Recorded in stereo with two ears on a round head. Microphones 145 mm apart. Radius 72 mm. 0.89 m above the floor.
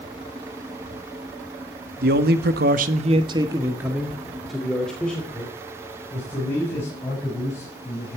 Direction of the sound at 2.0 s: 60° right (ahead or behind).